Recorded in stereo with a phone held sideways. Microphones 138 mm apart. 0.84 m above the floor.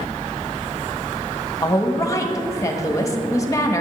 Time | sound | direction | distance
1.6 | a woman speaking | 25° left (ahead or behind) | 1.2 m